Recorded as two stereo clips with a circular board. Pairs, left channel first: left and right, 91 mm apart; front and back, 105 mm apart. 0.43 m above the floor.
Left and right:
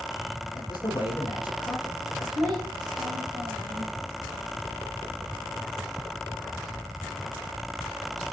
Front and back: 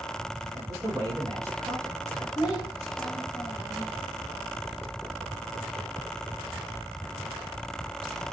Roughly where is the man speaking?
Behind left.